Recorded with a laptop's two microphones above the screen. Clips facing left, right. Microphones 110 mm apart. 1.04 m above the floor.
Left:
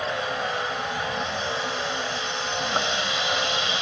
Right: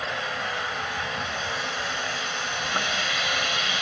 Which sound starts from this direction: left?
A vehicle, at 0.0 s.